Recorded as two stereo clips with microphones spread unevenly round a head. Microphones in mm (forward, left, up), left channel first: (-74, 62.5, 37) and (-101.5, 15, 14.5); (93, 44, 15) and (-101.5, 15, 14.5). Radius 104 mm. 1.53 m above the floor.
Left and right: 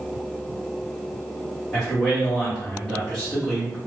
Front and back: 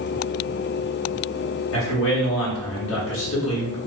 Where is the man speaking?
25° right, 1.0 m.